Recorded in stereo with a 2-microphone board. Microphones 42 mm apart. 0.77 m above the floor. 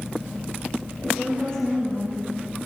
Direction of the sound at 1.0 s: 25° left (ahead or behind).